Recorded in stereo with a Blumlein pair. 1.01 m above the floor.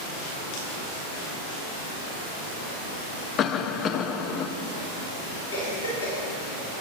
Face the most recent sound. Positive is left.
turn(degrees=60)